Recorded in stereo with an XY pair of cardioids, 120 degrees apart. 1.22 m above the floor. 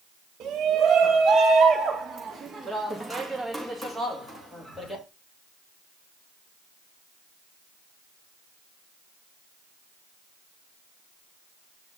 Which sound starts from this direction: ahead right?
A shout, at 0.4 s.